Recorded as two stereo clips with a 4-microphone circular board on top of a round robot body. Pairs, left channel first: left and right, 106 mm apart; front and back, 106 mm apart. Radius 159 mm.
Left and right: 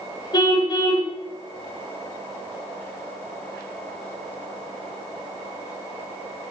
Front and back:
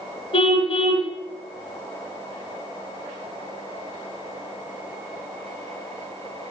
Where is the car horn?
40° left, 3 m.